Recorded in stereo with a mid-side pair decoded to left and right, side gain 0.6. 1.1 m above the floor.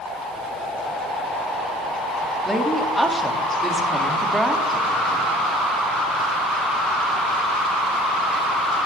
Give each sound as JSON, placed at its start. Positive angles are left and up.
{"t": 2.5, "sound": "a woman speaking", "azimuth_deg": -5, "distance_m": 1.8}